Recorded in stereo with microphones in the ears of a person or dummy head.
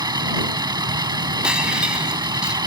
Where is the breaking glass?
10° right (ahead or behind).